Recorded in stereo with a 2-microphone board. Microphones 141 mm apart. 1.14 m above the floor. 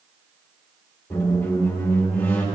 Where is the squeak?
15° left (ahead or behind), 1.8 m.